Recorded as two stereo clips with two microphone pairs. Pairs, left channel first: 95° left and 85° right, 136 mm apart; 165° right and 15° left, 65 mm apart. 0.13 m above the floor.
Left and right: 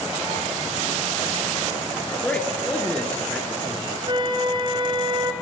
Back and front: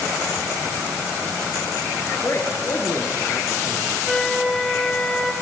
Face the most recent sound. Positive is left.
turn(degrees=-80)